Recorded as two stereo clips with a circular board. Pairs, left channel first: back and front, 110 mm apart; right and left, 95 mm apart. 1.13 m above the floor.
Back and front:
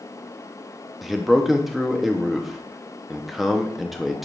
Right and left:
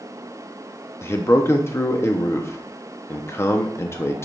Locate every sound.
1.0 s a man speaking: 85° right, 0.5 m